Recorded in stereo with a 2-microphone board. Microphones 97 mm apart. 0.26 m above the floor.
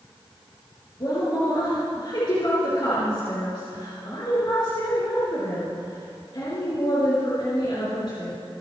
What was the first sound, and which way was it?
A woman speaking, 50° left (ahead or behind).